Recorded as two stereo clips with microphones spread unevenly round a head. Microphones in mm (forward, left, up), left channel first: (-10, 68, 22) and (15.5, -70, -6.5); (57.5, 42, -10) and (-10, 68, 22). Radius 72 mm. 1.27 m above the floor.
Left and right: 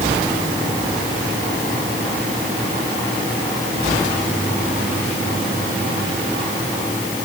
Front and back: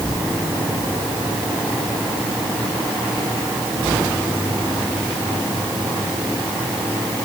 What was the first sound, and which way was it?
Only background noise.